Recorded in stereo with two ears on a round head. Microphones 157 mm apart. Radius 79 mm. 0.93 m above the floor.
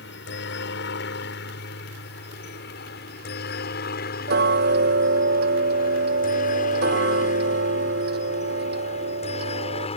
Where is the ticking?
60° right (ahead or behind).